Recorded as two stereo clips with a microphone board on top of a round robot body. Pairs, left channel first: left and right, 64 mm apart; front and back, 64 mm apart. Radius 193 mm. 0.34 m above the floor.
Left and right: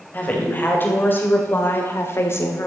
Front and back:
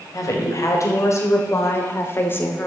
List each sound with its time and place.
0.1 s a woman speaking: 30° left, 2.5 m; by 2.7 s 55° left, 1.7 m